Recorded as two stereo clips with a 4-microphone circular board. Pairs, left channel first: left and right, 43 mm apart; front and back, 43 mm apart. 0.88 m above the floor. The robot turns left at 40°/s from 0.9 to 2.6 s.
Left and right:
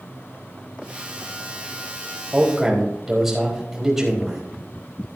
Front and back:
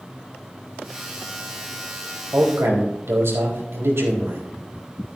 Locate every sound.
2.3 s a man speaking: 160° right, 4.5 m; by 4.4 s 170° right, 4.5 m